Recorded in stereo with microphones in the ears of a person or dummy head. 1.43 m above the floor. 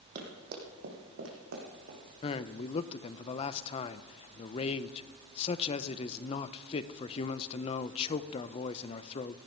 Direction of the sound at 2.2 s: 40° left (ahead or behind).